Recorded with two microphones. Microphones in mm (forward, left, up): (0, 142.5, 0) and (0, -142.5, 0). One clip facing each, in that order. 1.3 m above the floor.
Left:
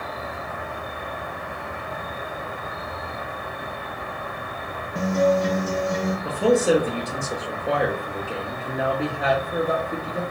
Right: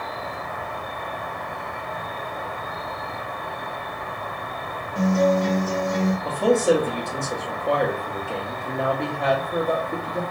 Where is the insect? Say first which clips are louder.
Even; 15° left (ahead or behind), 1.2 m.